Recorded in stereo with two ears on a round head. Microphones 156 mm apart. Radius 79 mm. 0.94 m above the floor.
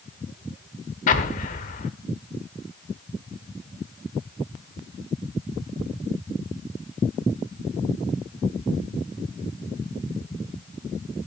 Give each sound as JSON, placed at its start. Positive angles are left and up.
{"t": 1.1, "sound": "an explosion", "side_deg": 45, "distance_m": 1.3}